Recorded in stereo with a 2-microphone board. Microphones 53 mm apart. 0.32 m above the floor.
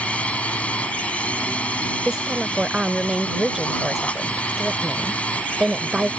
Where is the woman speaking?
10° right (ahead or behind).